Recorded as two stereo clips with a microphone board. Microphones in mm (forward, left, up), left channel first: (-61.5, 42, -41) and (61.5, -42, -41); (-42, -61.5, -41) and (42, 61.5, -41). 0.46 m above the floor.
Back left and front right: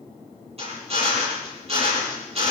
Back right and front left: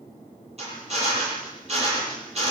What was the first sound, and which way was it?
A drill, 10° left.